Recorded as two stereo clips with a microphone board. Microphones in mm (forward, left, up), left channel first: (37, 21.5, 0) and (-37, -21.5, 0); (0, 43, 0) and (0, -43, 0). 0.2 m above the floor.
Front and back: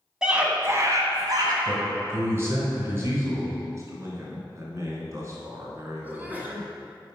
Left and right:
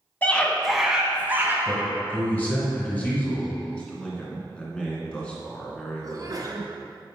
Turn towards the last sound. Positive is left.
turn(degrees=-90)